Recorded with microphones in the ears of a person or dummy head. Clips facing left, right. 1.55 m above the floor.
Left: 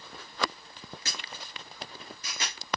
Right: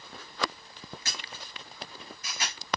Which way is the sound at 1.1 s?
25° left (ahead or behind).